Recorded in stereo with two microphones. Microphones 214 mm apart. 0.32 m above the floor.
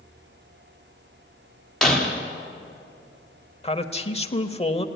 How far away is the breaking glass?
About 5.5 m.